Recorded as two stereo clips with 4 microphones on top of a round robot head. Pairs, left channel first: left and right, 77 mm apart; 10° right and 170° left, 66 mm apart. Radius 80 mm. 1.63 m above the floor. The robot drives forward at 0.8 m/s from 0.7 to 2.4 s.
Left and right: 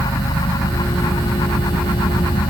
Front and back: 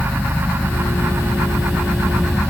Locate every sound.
0.0 s an engine running: 65° left; by 2.5 s 70° left